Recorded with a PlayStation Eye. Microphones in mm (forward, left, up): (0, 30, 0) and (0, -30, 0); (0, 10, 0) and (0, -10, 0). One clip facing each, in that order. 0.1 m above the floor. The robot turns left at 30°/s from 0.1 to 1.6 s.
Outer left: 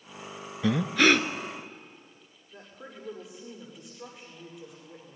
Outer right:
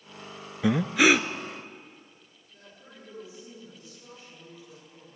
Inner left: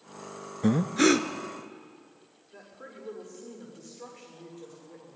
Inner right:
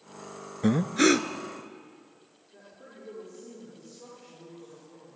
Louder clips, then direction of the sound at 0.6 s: Outer right 1 dB, even; 15° right (ahead or behind).